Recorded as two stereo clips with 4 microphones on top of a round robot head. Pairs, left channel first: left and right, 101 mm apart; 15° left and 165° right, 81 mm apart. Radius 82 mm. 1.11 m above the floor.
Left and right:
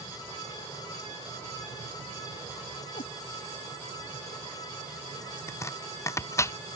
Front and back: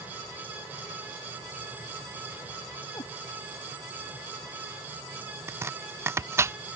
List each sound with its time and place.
2.9 s a cat meowing: 60° left
5.5 s chopping: 145° left